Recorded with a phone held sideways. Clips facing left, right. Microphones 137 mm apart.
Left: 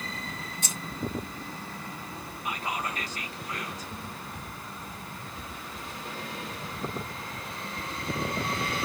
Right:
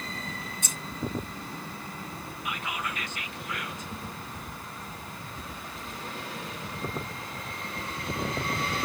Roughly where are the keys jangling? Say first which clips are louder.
Left 1 dB; left.